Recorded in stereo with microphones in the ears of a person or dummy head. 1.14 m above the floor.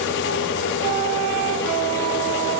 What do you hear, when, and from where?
Only background noise.